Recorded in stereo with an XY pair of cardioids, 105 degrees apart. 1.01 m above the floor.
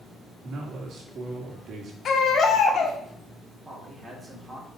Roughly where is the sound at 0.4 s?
Ahead right.